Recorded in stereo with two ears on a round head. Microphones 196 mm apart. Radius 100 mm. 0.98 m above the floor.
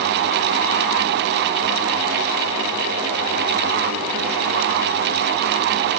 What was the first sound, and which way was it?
Only background noise.